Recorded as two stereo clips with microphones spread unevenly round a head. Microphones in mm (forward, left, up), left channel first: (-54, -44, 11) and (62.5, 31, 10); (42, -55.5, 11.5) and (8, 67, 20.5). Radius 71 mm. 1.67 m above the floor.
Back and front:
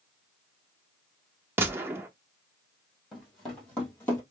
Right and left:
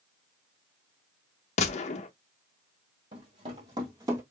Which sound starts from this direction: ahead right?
A gunshot, at 1.6 s.